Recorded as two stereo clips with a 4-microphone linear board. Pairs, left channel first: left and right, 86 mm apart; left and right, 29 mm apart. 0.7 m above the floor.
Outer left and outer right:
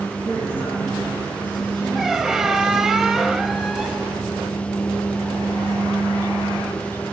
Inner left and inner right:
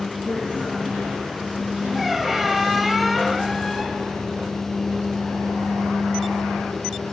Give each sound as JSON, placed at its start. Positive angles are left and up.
{"t": 0.2, "sound": "a man speaking", "side_deg": -70, "distance_m": 9.0}
{"t": 1.9, "sound": "a squeak", "side_deg": -5, "distance_m": 0.6}